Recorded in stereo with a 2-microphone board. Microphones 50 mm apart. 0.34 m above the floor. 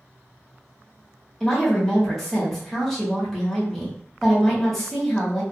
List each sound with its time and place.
1.4 s a woman speaking: 5° left (ahead or behind), 1.3 m